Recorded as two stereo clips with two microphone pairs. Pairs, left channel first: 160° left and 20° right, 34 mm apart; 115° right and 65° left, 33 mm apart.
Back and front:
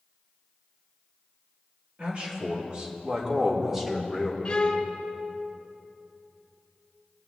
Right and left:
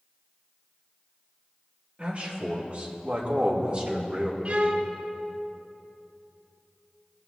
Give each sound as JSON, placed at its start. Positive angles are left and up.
{"t": 2.0, "sound": "a man speaking", "azimuth_deg": 25, "distance_m": 2.5}
{"t": 4.5, "sound": "a violin", "azimuth_deg": 105, "distance_m": 0.9}